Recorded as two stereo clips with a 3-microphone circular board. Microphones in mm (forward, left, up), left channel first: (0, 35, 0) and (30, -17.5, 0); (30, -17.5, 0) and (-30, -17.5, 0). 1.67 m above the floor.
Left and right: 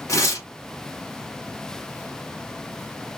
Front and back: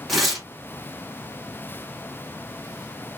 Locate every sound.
0.1 s tearing paper: 95° left, 1.7 m